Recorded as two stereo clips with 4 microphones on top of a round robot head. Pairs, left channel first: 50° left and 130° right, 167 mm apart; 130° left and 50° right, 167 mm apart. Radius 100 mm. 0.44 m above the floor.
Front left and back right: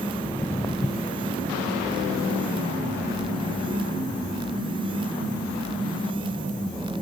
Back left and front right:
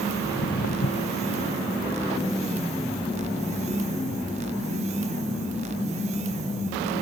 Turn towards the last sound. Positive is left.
turn(degrees=105)